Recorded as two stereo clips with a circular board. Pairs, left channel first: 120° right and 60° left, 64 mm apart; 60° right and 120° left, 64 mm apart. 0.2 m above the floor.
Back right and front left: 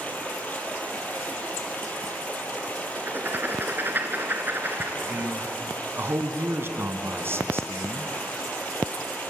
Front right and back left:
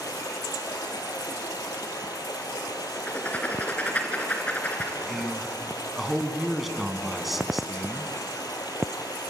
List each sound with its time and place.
0.0 s running water: 55° right, 2.5 m
3.0 s writing: 5° left, 2.5 m
5.1 s a man speaking: 35° left, 2 m